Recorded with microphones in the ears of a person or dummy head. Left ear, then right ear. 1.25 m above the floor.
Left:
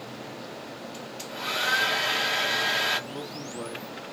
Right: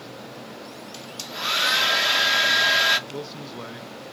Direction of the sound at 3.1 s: 15° right (ahead or behind).